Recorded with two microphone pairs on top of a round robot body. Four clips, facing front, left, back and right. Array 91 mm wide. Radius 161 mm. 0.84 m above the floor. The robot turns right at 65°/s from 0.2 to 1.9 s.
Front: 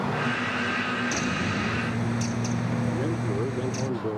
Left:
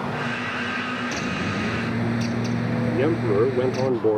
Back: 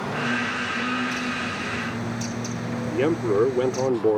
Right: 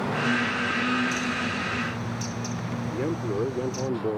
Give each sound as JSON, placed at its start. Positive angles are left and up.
{"t": 1.1, "sound": "a bird", "azimuth_deg": 60}
{"t": 2.9, "sound": "a man speaking", "azimuth_deg": 145}